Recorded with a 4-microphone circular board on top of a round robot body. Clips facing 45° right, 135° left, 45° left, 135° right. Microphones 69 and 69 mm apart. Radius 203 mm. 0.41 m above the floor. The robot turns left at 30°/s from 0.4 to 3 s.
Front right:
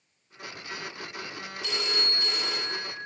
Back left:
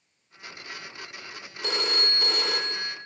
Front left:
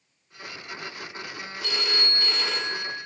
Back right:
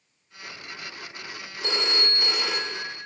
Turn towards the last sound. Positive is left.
turn(degrees=130)